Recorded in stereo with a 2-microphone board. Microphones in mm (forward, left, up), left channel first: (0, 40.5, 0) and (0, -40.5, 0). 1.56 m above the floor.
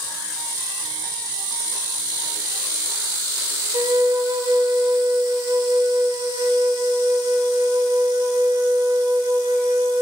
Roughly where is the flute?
Right.